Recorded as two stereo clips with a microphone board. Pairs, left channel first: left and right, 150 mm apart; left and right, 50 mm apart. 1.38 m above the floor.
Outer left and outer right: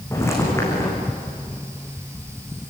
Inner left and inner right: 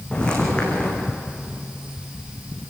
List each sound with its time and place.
0.1 s footsteps: 20° left (ahead or behind), 5.5 m